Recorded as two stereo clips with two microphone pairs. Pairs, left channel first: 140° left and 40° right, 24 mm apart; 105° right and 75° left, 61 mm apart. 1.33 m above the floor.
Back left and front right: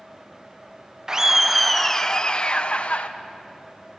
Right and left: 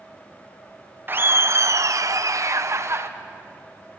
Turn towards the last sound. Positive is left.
turn(degrees=115)